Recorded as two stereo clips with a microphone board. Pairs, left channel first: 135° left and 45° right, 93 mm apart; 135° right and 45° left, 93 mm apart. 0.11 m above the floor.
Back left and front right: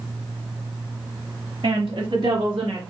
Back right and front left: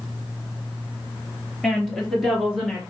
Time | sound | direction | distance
1.6 | a woman speaking | 50° right | 2.5 m